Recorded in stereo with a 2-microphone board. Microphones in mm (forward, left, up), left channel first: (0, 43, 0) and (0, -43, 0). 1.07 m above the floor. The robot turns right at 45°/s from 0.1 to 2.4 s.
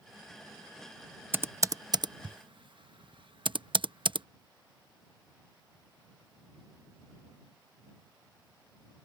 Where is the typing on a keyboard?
25° right (ahead or behind); by 4.3 s 70° right (ahead or behind).